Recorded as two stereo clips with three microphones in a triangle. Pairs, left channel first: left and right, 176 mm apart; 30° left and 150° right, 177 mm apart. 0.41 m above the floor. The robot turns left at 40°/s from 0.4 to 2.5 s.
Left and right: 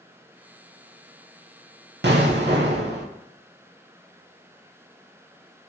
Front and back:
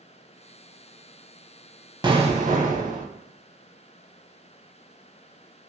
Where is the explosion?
85° right, 0.6 m; by 3.0 s 105° right, 0.6 m.